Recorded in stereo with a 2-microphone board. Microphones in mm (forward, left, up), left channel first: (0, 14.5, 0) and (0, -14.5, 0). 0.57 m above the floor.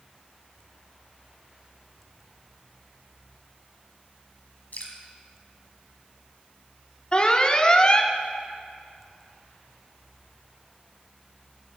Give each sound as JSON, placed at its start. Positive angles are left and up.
{"t": 4.7, "sound": "dripping", "side_deg": 65, "distance_m": 1.8}
{"t": 7.1, "sound": "an alarm", "side_deg": 30, "distance_m": 0.7}